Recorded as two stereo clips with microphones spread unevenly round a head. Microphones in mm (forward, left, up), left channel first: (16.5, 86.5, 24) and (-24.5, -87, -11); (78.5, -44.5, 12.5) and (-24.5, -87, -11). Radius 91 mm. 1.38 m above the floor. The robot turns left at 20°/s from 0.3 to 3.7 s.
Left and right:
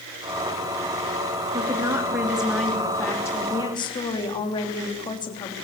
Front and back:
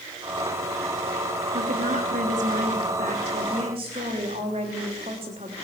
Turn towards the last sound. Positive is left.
turn(degrees=145)